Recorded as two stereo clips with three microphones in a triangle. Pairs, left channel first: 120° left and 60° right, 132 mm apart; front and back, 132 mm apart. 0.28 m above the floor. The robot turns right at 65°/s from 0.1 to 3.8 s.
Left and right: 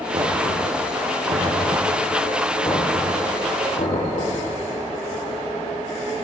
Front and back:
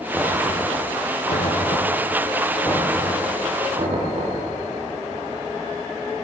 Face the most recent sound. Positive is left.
turn(degrees=140)